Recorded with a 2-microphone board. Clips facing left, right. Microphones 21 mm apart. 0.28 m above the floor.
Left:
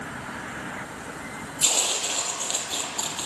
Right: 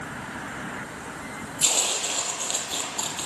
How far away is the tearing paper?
About 2.0 m.